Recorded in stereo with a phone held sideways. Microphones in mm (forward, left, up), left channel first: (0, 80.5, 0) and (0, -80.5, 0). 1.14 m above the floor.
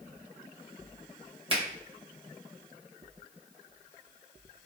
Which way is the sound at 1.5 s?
35° right (ahead or behind).